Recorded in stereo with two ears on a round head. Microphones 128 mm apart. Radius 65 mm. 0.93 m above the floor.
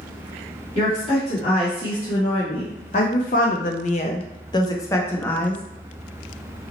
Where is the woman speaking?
25° left (ahead or behind), 1.8 m; by 5.6 s 10° left (ahead or behind), 1.2 m.